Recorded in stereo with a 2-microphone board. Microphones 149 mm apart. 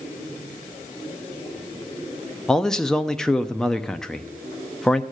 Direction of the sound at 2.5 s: 5° left (ahead or behind).